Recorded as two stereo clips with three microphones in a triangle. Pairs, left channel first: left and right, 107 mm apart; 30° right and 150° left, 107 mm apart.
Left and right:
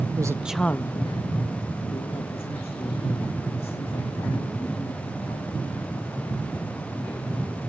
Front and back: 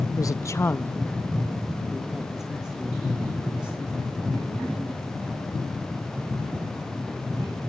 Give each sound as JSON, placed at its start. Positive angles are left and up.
{"t": 0.2, "sound": "a woman speaking", "azimuth_deg": -65, "distance_m": 0.6}